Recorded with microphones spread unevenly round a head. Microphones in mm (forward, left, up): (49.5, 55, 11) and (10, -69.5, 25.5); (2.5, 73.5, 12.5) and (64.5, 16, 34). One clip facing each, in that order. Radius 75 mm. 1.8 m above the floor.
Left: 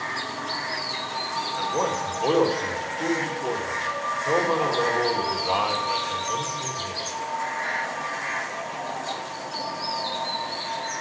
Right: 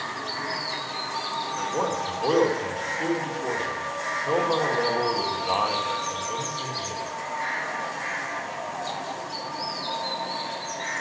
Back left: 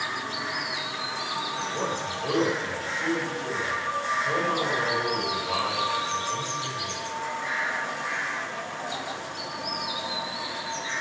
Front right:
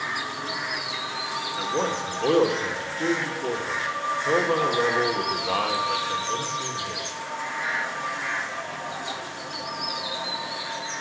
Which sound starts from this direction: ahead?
A man speaking, at 1.6 s.